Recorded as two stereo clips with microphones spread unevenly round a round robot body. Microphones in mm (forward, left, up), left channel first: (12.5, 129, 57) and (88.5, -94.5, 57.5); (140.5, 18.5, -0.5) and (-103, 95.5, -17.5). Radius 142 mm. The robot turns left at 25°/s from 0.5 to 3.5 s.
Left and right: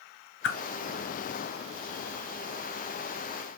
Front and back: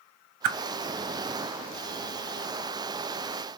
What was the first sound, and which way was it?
A whoosh, 160° left.